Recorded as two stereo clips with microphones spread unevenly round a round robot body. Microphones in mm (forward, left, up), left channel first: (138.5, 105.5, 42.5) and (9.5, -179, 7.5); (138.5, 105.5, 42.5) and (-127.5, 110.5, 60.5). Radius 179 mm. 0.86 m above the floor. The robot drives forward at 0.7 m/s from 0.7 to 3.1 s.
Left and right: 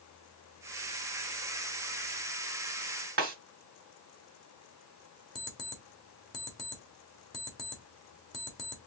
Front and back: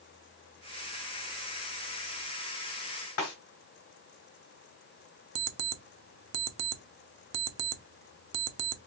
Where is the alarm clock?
155° left, 0.7 m.